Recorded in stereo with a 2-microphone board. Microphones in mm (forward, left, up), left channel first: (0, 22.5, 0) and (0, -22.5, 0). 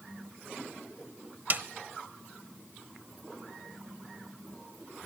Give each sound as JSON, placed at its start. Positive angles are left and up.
{"t": 1.5, "sound": "a snare drum", "side_deg": -45, "distance_m": 0.8}